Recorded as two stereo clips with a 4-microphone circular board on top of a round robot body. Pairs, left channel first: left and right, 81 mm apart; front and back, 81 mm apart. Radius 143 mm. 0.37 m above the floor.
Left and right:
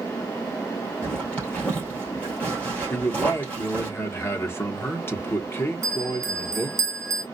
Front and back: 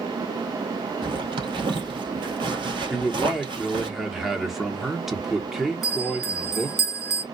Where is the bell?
95° right, 1.7 m.